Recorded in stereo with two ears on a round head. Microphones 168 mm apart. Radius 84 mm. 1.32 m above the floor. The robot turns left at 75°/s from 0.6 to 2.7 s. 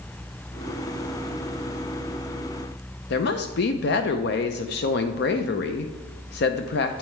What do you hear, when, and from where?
3.1 s a woman speaking: 60° left (ahead or behind), 0.5 m